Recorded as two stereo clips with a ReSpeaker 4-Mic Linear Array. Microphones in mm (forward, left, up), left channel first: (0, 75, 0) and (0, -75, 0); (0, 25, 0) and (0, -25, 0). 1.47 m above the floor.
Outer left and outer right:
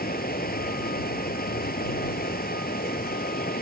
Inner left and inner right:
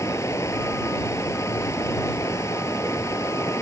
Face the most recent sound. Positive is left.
turn(degrees=85)